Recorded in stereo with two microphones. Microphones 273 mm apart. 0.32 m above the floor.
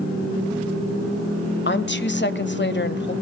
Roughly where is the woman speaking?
Left.